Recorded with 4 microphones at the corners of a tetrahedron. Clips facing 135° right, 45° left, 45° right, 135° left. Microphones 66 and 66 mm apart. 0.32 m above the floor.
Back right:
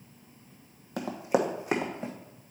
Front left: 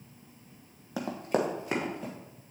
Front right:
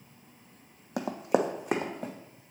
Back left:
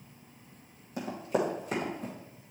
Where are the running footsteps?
40° right, 0.8 m; by 2.1 s 70° right, 1.6 m.